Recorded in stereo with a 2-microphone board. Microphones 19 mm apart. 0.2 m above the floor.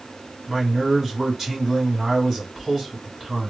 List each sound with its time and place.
0.5 s a man speaking: 25° right (ahead or behind), 1.7 m